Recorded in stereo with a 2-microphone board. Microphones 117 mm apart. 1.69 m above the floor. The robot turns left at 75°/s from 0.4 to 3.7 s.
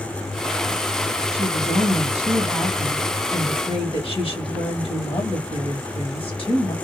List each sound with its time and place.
1.3 s a woman speaking: 55° right, 2 m; by 6.8 s 130° left, 2 m